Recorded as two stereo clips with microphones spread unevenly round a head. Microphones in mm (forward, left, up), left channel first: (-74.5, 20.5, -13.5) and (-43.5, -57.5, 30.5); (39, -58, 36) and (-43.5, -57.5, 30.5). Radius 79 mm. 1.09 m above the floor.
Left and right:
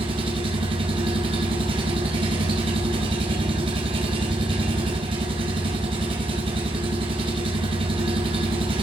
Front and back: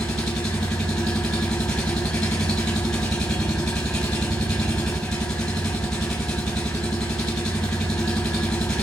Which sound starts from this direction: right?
An engine running, at 0.0 s.